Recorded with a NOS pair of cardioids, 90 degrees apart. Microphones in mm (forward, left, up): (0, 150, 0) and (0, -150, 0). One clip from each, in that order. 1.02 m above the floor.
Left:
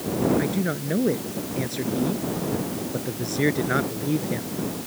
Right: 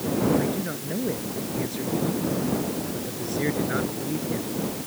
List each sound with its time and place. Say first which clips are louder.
0.4 s a man speaking: left 2 dB; 50° left